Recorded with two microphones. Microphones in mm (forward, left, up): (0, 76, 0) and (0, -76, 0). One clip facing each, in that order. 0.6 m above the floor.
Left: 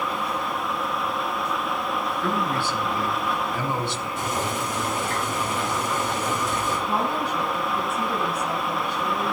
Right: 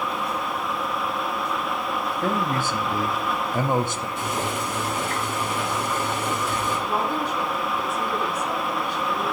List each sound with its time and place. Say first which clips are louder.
2.2 s a man speaking: right 2 dB; 45° right (ahead or behind), 0.8 m
4.2 s boiling: even; 45° left (ahead or behind), 4.5 m
6.9 s a woman speaking: even; 60° left (ahead or behind), 5 m